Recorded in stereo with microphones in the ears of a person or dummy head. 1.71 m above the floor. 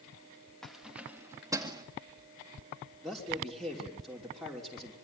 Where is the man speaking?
Centre (ahead or behind), 5.5 m.